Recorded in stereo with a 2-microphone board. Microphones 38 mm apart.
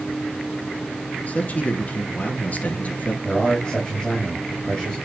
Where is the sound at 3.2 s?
20° left (ahead or behind), 5 m.